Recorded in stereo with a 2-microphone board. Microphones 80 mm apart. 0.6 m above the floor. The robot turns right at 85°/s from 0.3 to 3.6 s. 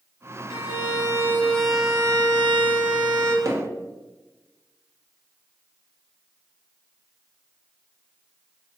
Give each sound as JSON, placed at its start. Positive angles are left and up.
{"t": 0.5, "sound": "a violin", "azimuth_deg": 80, "distance_m": 0.6}
{"t": 3.5, "sound": "hammering", "side_deg": -40, "distance_m": 0.9}